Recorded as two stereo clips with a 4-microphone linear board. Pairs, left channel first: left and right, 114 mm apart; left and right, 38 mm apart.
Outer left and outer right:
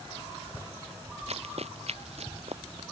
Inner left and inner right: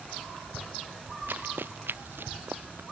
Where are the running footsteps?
65° right (ahead or behind).